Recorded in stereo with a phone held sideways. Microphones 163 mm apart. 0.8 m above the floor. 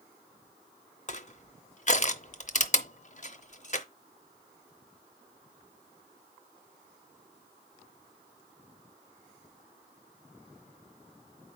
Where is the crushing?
50° left (ahead or behind), 0.7 m.